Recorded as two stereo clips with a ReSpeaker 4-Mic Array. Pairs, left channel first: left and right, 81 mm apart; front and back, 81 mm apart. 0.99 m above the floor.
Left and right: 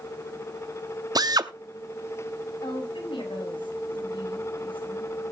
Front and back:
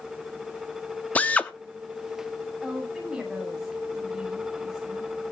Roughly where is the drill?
Right.